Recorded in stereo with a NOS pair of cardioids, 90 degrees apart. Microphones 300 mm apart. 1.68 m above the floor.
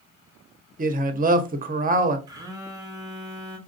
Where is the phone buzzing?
10° right, 1.0 m.